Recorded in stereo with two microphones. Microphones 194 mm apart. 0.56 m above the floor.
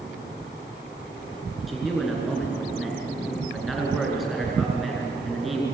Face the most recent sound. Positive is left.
turn(degrees=0)  # may be behind; listen again after turning